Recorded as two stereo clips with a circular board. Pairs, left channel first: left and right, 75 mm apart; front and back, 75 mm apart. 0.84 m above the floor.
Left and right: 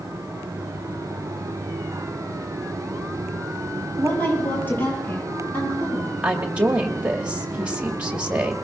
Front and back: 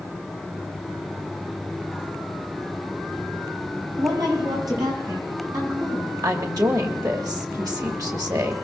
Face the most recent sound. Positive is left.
turn(degrees=-160)